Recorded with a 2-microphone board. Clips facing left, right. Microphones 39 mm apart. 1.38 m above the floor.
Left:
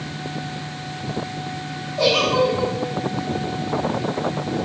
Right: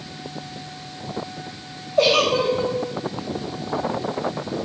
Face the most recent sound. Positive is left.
turn(degrees=-65)  # may be behind; listen again after turning